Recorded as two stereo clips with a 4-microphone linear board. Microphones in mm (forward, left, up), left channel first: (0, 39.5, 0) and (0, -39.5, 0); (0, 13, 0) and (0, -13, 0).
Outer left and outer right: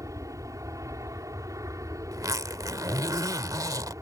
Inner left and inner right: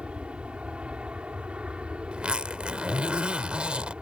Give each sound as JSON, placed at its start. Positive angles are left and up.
{"t": 0.0, "sound": "an aircraft", "side_deg": -45}
{"t": 2.1, "sound": "a zipper", "side_deg": -50}